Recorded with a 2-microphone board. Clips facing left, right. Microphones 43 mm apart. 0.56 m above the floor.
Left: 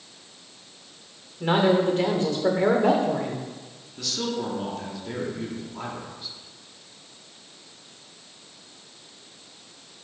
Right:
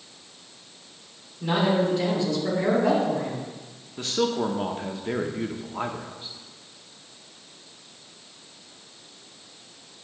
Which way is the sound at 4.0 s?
35° right (ahead or behind).